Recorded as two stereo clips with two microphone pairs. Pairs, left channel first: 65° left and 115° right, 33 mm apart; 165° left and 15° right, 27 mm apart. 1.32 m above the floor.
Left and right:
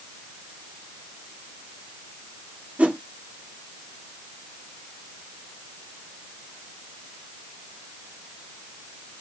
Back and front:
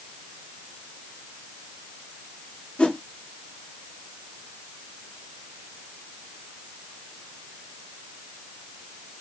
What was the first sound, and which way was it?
A whoosh, 155° right.